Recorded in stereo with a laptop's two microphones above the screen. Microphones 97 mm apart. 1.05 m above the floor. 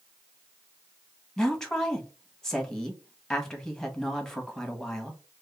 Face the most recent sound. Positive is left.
turn(degrees=5)  # may be behind; listen again after turning